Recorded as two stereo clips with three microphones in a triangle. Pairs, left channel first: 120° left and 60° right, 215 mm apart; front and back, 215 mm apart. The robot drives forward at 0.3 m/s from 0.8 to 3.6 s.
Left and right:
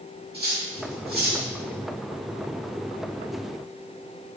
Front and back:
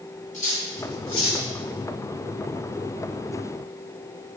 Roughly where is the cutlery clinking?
Ahead right.